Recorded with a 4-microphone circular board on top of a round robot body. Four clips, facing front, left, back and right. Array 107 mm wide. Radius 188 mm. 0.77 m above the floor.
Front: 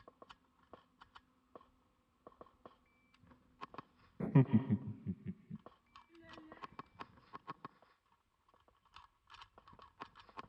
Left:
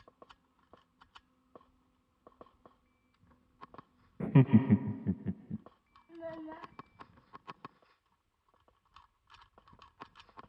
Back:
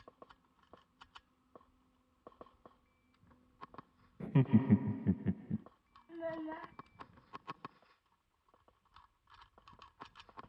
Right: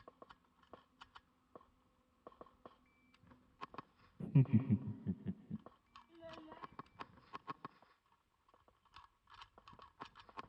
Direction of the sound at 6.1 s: 155° left.